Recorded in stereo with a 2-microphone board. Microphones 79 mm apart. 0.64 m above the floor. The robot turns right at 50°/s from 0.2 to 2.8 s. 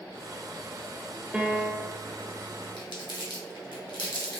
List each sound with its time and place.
1.3 s a piano: 165° right, 0.5 m; by 2.0 s 130° right, 0.5 m
2.8 s crumpling: 70° left (ahead or behind), 1.0 m; by 4.4 s 75° left (ahead or behind), 1.0 m